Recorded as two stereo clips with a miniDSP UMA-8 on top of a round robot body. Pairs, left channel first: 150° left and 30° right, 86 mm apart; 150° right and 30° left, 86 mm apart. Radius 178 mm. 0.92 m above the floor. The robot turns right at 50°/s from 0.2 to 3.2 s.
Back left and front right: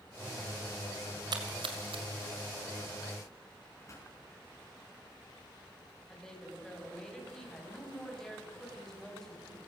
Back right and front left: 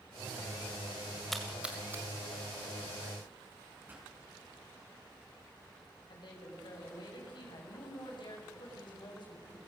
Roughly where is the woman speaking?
Behind right.